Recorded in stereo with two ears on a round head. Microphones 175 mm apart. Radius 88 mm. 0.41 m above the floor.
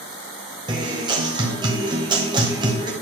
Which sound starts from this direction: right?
A guitar, at 0.7 s.